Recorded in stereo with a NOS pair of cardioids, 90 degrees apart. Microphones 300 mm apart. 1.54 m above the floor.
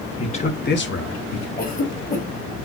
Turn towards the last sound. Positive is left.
turn(degrees=30)